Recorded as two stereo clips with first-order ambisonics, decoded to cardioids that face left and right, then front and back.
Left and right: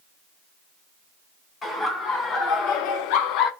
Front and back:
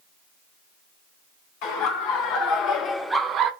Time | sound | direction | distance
1.6 | laughter | 25° left | 1.8 m